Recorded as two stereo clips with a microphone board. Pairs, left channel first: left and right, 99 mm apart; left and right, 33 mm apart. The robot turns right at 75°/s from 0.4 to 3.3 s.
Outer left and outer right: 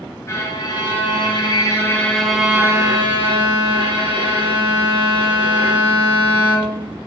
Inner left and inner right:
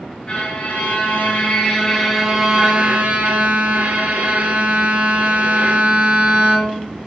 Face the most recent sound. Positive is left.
turn(degrees=-105)